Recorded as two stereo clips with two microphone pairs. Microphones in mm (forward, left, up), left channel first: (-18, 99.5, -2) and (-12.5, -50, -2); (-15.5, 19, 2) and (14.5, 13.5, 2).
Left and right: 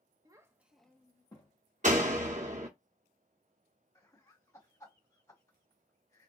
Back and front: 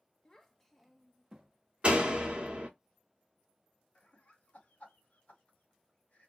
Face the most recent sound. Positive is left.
turn(degrees=160)